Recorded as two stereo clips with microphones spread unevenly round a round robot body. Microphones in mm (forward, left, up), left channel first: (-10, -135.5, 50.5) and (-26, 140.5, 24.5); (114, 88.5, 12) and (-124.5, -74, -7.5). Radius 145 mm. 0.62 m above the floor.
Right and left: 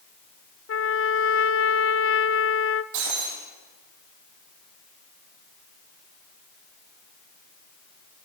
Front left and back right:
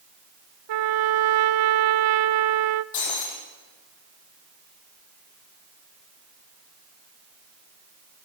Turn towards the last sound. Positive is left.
turn(degrees=65)